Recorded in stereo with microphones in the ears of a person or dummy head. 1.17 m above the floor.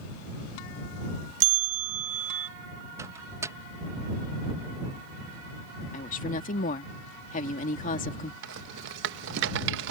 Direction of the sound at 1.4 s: 50° right (ahead or behind).